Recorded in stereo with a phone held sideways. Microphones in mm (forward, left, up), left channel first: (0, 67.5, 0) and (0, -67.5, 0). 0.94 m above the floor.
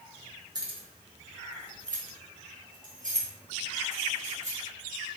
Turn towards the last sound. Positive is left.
turn(degrees=-60)  # may be behind; listen again after turning